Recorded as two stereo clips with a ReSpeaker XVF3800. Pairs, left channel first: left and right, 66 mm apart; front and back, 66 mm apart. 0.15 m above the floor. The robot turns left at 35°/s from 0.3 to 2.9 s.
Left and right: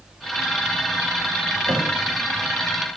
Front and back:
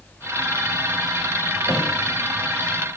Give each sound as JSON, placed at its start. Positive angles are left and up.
{"t": 1.7, "sound": "a thud", "azimuth_deg": -100, "distance_m": 4.5}